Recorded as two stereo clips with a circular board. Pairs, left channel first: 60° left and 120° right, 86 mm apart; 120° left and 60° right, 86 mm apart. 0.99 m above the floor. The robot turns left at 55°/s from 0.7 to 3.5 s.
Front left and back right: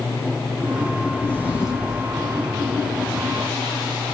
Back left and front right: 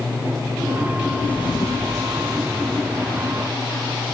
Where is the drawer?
135° left, 8 m; by 2.0 s 90° left, 8 m.